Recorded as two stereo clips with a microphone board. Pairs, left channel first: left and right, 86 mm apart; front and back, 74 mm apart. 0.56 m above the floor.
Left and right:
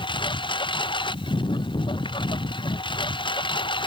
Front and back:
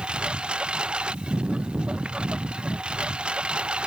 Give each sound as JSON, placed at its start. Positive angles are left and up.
{"t": 0.0, "sound": "a lawn mower", "azimuth_deg": 105}